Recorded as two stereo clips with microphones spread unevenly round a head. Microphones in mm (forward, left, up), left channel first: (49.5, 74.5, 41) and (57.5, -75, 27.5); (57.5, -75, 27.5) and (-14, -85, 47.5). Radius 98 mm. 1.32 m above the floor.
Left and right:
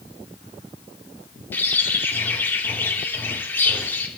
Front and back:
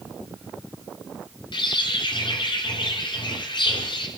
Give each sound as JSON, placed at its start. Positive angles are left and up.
{"t": 1.5, "sound": "a bird", "azimuth_deg": 15, "distance_m": 2.5}